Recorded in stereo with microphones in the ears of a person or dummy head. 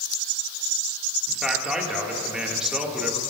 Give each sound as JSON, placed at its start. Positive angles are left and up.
{"t": 1.3, "sound": "a man speaking", "side_deg": 0, "distance_m": 1.6}